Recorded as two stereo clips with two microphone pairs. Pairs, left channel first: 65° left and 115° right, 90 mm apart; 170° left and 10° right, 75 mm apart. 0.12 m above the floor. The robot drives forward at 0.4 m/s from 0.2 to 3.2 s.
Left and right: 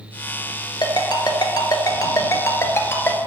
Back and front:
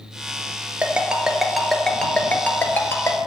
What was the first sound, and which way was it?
A ringtone, 60° left.